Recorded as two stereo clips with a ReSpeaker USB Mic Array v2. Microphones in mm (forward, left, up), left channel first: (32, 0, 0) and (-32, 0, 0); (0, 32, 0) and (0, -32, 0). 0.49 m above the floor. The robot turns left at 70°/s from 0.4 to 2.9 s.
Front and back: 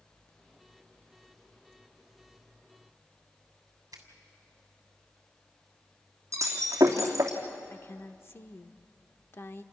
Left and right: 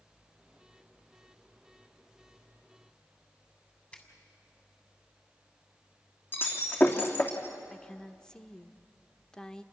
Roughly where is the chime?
No chime in this recording.